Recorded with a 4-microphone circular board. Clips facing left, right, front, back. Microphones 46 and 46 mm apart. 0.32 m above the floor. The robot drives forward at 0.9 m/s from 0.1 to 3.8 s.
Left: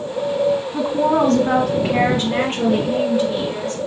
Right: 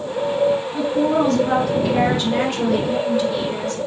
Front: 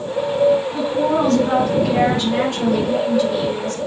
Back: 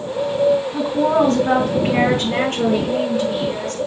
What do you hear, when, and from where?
0.7 s a woman speaking: 105° left, 2 m; by 3.8 s 155° left, 4 m